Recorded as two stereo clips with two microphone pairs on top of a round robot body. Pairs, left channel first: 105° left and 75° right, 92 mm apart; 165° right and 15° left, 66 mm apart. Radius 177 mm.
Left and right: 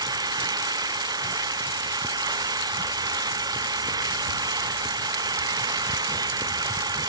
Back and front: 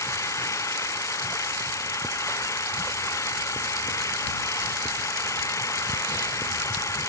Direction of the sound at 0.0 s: 120° right.